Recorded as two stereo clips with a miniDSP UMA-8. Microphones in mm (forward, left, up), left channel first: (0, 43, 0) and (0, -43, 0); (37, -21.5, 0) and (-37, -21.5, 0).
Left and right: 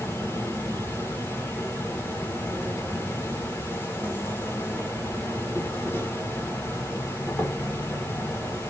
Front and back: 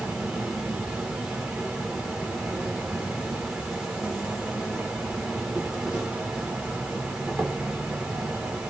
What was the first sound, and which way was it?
An insect, 105° left.